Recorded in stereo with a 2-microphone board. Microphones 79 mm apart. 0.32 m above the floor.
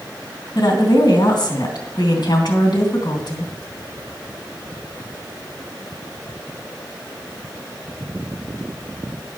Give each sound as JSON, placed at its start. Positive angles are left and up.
{"t": 0.6, "sound": "a woman speaking", "side_deg": 65, "distance_m": 3.0}